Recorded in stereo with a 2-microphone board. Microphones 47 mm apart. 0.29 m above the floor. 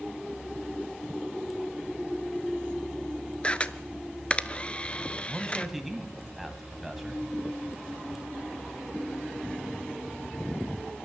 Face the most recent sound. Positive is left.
turn(degrees=-5)  # may be behind; listen again after turning